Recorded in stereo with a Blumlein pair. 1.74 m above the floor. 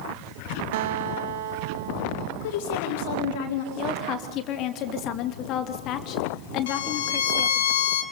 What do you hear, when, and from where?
0.7 s a guitar: 55° right, 0.9 m
2.4 s a woman speaking: 50° left, 4.5 m
3.8 s a woman speaking: 35° left, 2.5 m
6.7 s a violin: 60° left, 2.5 m